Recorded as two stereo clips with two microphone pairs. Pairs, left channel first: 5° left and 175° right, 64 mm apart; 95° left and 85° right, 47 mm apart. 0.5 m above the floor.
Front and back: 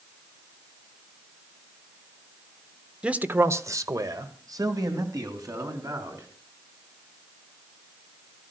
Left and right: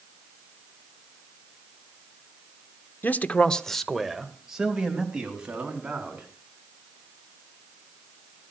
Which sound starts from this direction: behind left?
A man speaking, at 3.0 s.